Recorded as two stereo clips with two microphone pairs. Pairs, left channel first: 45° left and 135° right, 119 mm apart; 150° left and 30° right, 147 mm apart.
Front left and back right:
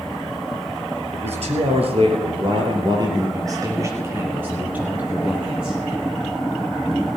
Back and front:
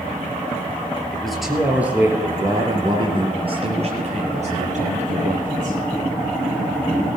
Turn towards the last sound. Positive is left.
turn(degrees=-50)